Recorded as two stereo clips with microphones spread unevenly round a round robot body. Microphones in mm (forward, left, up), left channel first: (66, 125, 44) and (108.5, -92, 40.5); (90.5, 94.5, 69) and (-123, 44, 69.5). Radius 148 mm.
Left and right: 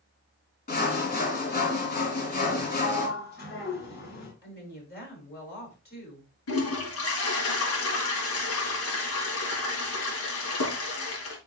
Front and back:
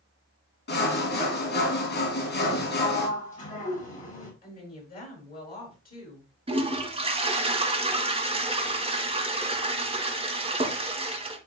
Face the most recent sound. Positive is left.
turn(degrees=130)